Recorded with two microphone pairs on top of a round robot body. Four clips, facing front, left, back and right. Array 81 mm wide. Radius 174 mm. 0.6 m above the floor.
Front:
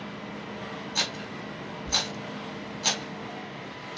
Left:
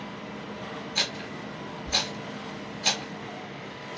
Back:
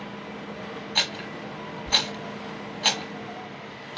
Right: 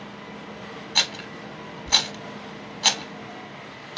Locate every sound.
0.9 s a rattle: 110° right, 1.1 m